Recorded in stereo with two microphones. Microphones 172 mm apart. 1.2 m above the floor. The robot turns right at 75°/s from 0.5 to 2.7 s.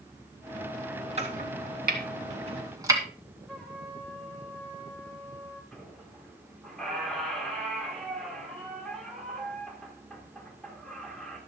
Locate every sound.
1.2 s chopping: 40° right (ahead or behind), 2.5 m; by 3.0 s 20° right (ahead or behind), 2.5 m
3.5 s a trumpet: 10° left (ahead or behind), 4.5 m
5.7 s a squeak: 5° left (ahead or behind), 4 m